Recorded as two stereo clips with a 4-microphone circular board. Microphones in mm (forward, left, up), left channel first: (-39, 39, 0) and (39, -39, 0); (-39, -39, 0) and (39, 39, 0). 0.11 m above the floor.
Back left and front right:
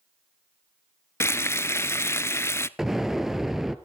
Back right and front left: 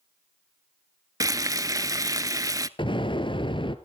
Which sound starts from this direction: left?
Frying, at 1.2 s.